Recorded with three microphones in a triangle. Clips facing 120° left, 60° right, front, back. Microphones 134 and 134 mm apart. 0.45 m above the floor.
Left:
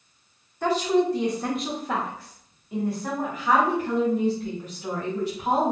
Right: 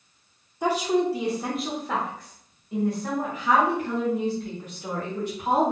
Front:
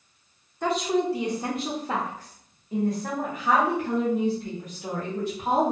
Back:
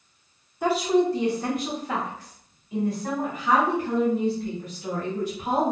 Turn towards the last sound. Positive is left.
turn(degrees=40)